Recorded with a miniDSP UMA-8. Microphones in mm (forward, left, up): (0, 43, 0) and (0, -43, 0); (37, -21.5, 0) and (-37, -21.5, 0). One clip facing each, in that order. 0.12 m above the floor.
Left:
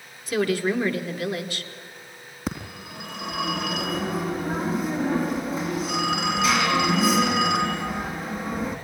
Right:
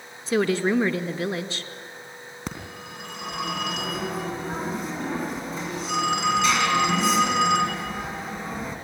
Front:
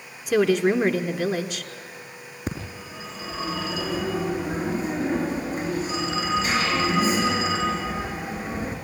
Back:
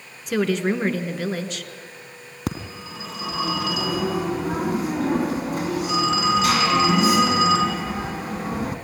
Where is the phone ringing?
Straight behind, 3.5 m.